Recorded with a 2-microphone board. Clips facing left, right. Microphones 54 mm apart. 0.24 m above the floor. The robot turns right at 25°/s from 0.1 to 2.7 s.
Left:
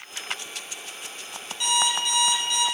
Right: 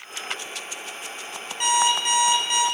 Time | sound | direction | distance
1.6 | an alarm clock | 50° right (ahead or behind) | 1.0 m